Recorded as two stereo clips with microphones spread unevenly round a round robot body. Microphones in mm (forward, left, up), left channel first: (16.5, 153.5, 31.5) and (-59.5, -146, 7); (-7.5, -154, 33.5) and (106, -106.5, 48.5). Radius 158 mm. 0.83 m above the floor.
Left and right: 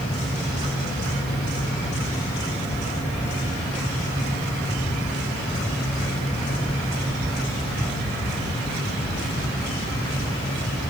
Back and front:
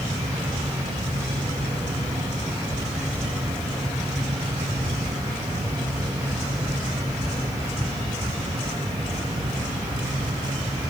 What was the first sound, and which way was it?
Only background noise.